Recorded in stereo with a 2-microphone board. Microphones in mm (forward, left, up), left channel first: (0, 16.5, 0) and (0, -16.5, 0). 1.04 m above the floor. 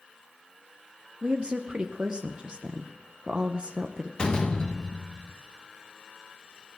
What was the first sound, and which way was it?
A woman speaking, 30° right (ahead or behind).